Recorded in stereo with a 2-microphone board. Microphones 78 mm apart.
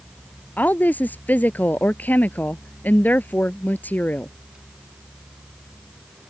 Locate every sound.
0.6 s a woman speaking: 20° left (ahead or behind)